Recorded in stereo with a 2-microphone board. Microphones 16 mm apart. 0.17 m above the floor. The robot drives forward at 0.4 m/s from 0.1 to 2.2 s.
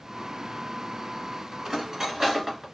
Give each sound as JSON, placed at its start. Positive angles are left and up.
{"t": 1.6, "sound": "cutlery clinking", "side_deg": -35, "distance_m": 1.3}